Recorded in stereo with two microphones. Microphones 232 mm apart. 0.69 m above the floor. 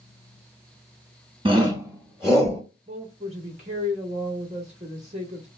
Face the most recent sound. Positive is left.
turn(degrees=-30)  # may be behind; listen again after turning